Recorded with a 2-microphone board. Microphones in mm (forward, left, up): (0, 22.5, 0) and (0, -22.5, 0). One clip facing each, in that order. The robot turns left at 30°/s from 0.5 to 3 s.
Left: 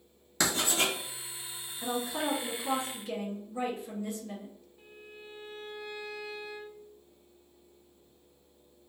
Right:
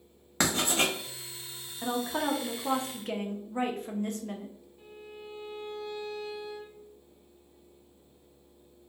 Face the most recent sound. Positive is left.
turn(degrees=10)  # may be behind; listen again after turning